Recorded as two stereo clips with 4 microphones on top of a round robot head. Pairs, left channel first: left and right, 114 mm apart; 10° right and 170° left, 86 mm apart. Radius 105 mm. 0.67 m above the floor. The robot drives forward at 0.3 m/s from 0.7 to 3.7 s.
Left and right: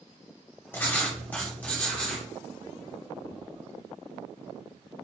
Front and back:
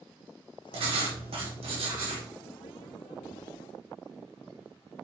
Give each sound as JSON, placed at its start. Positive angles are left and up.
{"t": 0.7, "sound": "writing", "azimuth_deg": 160, "distance_m": 1.1}